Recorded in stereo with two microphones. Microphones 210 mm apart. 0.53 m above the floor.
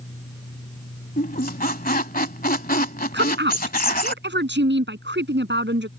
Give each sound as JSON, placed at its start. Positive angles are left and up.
{"t": 1.2, "sound": "a squeak", "side_deg": 45}
{"t": 3.1, "sound": "a woman speaking", "side_deg": -60}